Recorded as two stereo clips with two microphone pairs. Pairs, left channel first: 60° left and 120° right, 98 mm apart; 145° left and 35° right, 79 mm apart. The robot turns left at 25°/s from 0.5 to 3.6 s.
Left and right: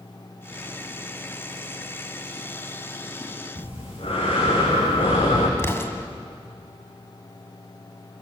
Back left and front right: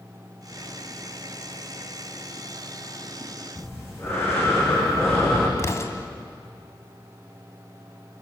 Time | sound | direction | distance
3.5 | breathing | 85° left | 7.5 m
5.6 | an explosion | 115° left | 2 m